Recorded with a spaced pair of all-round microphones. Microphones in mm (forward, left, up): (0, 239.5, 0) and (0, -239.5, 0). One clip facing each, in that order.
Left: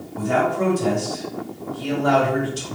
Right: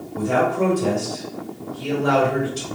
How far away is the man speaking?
About 1.8 m.